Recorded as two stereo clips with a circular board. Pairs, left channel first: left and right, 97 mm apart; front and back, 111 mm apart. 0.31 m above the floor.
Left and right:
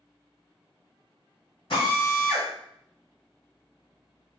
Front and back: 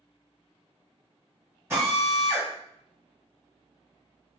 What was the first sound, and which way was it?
A drill, 110° left.